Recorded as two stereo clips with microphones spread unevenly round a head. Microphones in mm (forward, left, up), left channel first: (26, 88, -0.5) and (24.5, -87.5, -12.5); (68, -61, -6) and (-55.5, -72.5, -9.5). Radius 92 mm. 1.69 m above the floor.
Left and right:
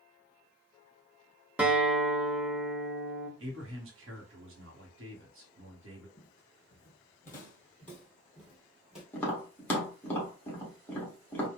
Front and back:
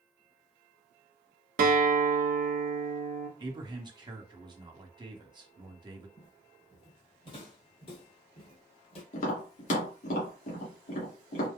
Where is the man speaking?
120° right, 1.4 m.